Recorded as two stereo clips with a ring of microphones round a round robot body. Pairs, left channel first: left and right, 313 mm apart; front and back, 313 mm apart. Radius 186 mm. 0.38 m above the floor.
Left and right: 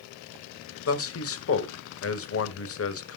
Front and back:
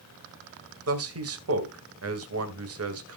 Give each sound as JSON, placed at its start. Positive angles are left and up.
{"t": 0.9, "sound": "a man speaking", "azimuth_deg": 135, "distance_m": 1.9}